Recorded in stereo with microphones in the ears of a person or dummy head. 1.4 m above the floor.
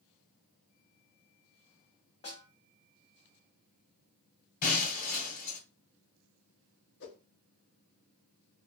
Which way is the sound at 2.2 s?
35° left (ahead or behind).